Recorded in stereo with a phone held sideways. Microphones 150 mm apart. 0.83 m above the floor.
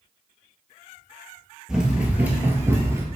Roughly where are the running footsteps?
Centre.